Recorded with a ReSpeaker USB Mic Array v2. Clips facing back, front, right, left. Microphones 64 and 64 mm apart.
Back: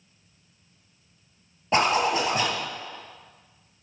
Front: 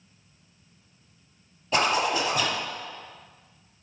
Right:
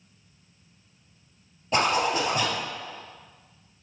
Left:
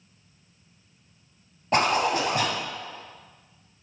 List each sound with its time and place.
1.7 s a zipper: 135° left, 2 m